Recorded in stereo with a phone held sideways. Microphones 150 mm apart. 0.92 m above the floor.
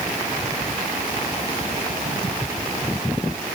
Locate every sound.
Only background noise.